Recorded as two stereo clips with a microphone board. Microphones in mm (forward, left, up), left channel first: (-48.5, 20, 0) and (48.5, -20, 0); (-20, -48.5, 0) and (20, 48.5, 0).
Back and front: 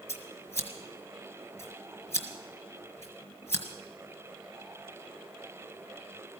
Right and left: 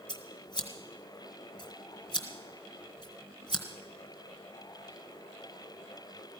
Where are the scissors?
145° right, 1.7 m.